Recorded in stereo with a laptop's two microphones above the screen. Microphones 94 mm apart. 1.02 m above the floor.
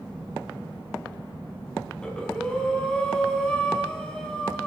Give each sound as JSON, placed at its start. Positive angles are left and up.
{"t": 2.0, "sound": "breathing", "side_deg": 10, "distance_m": 0.5}